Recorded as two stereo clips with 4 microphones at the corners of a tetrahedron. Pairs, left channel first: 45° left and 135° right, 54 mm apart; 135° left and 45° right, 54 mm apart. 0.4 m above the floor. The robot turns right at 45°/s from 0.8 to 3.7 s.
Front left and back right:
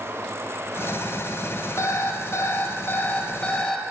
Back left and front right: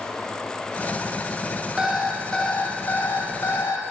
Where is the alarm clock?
35° left, 1.0 m; by 3.8 s 120° left, 1.0 m.